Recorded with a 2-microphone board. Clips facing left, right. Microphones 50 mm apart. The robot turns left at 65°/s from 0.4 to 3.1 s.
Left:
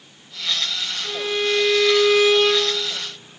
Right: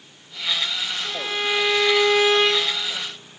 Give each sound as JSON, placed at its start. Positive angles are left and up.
{"t": 1.0, "sound": "a violin", "azimuth_deg": 5, "distance_m": 2.0}